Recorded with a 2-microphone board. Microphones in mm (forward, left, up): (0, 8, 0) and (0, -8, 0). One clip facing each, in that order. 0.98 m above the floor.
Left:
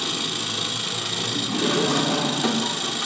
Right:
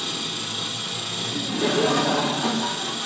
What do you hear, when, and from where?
0.0 s an engine running: 35° left (ahead or behind), 1.5 m
1.3 s laughter: 25° right (ahead or behind), 1.3 m